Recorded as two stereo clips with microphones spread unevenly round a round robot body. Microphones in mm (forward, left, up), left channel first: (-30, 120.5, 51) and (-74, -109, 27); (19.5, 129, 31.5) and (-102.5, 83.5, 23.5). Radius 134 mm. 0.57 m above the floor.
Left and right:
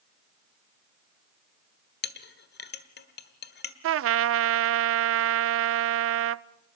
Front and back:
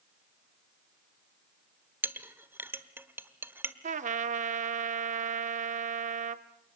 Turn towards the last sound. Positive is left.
turn(degrees=-125)